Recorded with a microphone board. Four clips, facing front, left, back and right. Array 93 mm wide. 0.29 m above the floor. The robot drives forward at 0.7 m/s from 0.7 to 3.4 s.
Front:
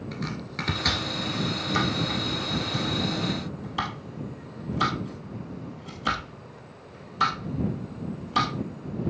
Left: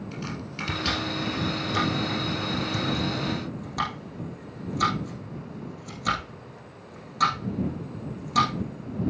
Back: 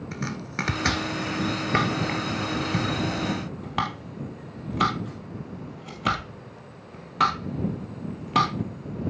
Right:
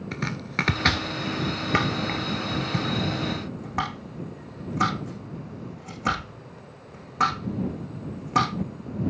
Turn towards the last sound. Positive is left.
turn(degrees=-150)